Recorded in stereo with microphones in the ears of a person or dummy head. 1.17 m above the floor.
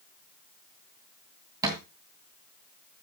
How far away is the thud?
About 2.5 m.